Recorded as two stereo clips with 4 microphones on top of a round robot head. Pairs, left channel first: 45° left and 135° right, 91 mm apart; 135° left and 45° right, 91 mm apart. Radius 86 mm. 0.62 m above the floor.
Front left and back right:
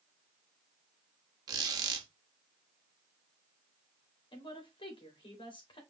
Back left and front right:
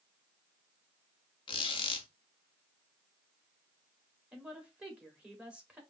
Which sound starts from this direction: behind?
A squeak, at 1.5 s.